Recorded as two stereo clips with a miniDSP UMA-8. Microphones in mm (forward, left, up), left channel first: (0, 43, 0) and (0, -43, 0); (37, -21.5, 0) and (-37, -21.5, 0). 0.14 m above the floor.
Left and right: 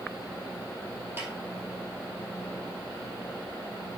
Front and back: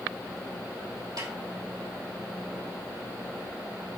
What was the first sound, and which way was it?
A snare drum, 155° right.